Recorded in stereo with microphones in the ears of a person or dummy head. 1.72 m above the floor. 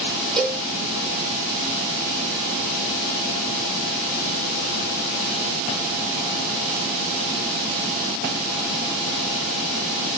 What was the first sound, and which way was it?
A cowbell, centre (ahead or behind).